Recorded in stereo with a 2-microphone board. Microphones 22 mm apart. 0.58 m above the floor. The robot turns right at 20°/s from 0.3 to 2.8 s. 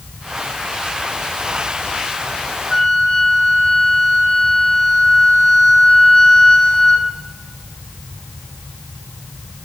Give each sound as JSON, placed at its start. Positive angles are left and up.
{"t": 2.7, "sound": "a flute", "side_deg": 20, "distance_m": 1.6}